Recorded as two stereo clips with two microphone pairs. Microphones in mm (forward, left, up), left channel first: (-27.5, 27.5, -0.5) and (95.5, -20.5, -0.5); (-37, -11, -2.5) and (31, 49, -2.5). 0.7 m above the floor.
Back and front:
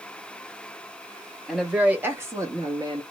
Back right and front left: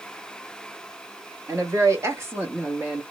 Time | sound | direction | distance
1.5 | a woman speaking | 60° left | 1.3 m